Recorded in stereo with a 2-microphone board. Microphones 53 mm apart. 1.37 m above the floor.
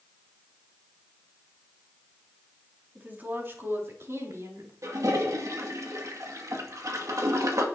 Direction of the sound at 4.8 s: 75° right (ahead or behind).